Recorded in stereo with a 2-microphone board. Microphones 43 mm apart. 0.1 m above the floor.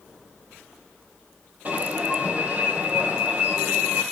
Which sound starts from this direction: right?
An alarm, at 1.6 s.